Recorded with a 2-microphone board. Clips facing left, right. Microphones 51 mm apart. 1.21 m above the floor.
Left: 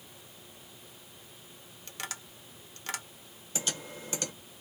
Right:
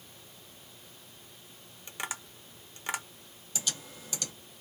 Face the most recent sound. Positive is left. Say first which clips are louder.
# left 3 dB
turn(degrees=35)  # may be behind; listen again after turning